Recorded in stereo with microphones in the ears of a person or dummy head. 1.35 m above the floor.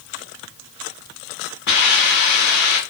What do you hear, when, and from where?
1.7 s a hiss: 55° left (ahead or behind), 1.3 m